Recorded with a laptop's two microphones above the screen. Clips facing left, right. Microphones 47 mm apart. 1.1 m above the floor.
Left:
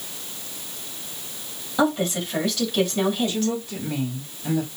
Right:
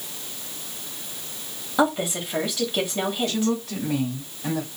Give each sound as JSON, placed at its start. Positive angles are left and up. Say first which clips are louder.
{"t": 1.8, "sound": "a woman speaking", "louder": "even", "side_deg": -15, "distance_m": 1.9}
{"t": 3.3, "sound": "a woman speaking", "louder": "right 1 dB", "side_deg": -65, "distance_m": 2.5}